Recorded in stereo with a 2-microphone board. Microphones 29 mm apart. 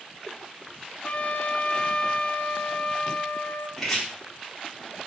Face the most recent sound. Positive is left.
turn(degrees=15)  # may be behind; listen again after turning